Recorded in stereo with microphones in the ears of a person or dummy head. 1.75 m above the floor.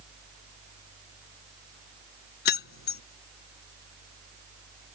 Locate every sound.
2.5 s keys jangling: 55° left (ahead or behind)